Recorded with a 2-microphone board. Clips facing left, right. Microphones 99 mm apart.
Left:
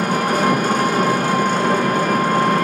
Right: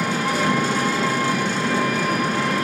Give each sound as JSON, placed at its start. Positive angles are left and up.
{"t": 0.0, "sound": "an engine running", "side_deg": 45, "distance_m": 1.9}